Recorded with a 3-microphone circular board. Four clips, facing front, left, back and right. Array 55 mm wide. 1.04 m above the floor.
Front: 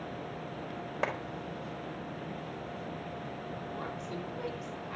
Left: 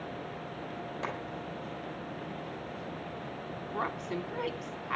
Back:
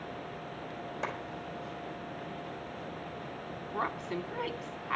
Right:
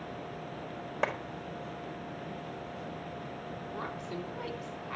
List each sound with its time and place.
1.0 s a clap: 50° right, 4.5 m
3.7 s a woman speaking: 140° left, 2 m